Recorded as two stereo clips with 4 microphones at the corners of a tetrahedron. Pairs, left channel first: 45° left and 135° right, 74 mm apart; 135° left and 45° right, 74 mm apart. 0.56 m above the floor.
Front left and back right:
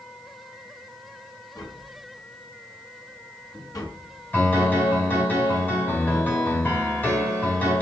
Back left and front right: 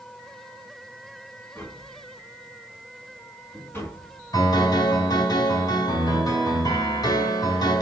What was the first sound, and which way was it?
Tapping, 75° left.